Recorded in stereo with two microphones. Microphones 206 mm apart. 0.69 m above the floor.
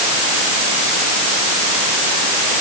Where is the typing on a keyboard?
No typing on a keyboard in this recording.